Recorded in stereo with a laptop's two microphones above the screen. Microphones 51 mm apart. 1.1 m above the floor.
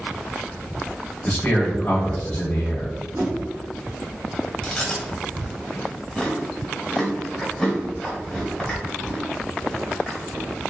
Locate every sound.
1.2 s a man speaking: 20° left (ahead or behind), 1.0 m
3.1 s a whoosh: 50° right (ahead or behind), 1.9 m
4.6 s chewing: 10° left (ahead or behind), 1.5 m